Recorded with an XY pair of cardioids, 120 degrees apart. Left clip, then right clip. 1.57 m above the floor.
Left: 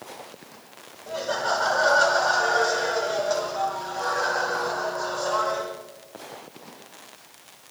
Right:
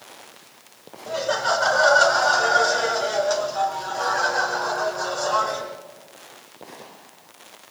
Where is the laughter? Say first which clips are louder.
Right 3 dB; 45° right, 9.5 m; by 5.6 s 50° right, 12 m.